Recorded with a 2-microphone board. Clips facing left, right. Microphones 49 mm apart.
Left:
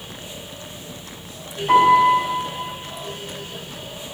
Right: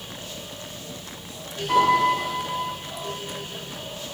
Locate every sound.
1.7 s a piano: 60° left (ahead or behind), 5.5 m